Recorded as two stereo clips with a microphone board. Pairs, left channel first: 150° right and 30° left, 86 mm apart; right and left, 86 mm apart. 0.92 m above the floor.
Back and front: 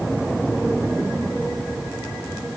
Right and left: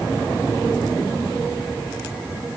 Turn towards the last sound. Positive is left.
No sound to turn to.